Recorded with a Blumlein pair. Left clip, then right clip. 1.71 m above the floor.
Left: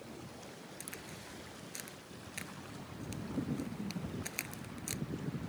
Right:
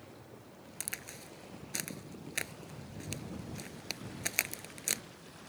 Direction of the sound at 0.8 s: 65° right.